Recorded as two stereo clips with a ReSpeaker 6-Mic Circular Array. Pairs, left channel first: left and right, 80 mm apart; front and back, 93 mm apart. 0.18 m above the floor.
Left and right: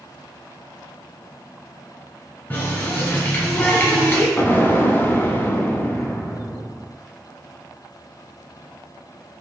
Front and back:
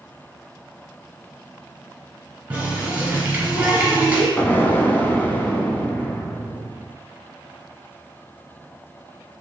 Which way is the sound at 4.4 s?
55° left.